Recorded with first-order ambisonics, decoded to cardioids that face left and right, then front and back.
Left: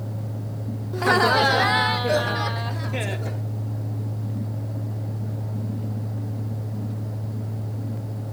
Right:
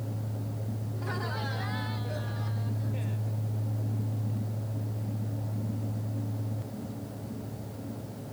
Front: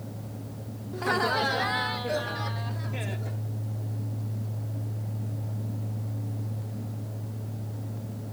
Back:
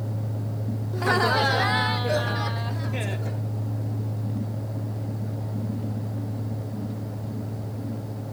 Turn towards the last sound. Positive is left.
turn(degrees=110)